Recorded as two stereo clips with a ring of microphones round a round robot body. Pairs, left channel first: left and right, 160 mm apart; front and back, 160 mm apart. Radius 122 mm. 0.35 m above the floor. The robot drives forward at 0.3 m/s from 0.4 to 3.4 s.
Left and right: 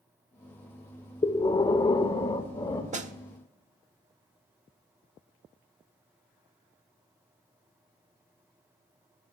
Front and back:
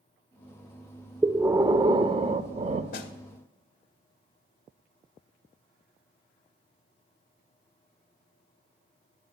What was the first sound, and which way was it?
Breathing, 110° left.